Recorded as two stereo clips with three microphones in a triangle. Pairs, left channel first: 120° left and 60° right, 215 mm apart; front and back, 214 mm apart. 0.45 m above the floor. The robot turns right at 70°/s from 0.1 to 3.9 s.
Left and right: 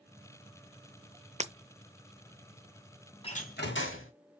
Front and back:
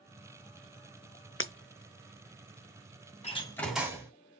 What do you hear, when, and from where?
1.4 s breaking glass: 5° right, 0.8 m; by 1.5 s 5° left, 0.8 m
3.2 s a door slam: 55° left, 2.5 m; by 4.1 s 100° left, 2.5 m